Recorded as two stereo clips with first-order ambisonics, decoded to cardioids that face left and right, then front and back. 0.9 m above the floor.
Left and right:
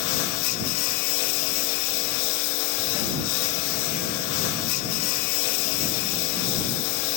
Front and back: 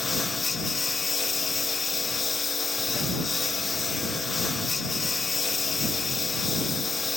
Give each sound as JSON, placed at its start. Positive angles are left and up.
{"t": 0.0, "sound": "a lawn mower", "azimuth_deg": 80}